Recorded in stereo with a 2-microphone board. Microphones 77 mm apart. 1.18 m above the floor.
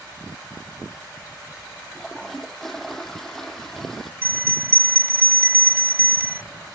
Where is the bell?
30° right (ahead or behind).